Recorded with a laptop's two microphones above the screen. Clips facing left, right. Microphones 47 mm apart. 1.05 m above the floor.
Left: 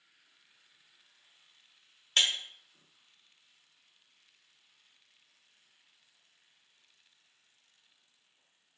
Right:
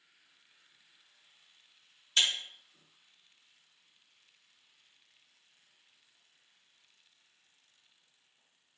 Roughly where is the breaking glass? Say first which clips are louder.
Left 1 dB; left.